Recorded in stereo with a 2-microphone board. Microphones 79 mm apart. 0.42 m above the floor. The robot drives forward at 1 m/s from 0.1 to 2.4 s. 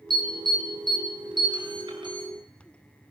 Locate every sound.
0.1 s an alarm: 70° right (ahead or behind), 5.5 m; by 2.3 s 80° right, 5.5 m